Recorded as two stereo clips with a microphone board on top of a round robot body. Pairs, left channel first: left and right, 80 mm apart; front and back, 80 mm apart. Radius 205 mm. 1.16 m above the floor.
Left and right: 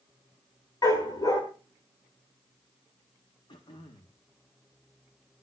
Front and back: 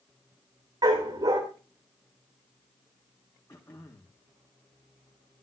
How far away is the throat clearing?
About 0.9 m.